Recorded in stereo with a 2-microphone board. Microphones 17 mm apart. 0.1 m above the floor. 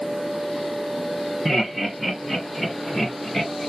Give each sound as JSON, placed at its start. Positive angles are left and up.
{"t": 1.4, "sound": "laughter", "side_deg": -25, "distance_m": 1.8}